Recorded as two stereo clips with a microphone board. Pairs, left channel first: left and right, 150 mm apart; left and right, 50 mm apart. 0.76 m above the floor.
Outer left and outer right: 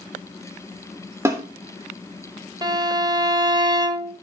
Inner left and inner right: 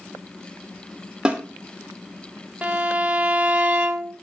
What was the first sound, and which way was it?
A snare drum, 20° right (ahead or behind).